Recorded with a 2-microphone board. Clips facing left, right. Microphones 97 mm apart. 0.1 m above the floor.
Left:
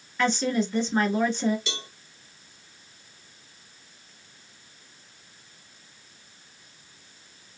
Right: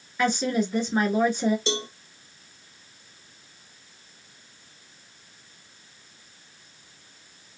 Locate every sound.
0.2 s a woman speaking: 5° right (ahead or behind), 1.1 m
1.7 s a cowbell: 35° right (ahead or behind), 0.6 m